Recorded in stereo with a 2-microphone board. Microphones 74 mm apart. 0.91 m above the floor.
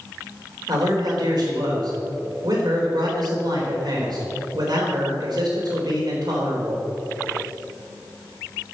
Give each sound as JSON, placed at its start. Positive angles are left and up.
{"t": 0.7, "sound": "a man speaking", "side_deg": -65, "distance_m": 3.5}